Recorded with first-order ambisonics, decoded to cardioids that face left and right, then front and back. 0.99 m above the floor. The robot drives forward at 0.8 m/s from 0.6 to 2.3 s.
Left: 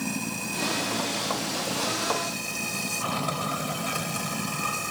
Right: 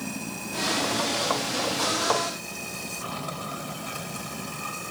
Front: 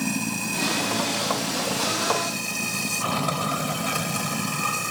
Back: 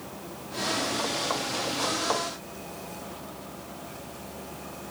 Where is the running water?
15° left; by 4.9 s 20° left.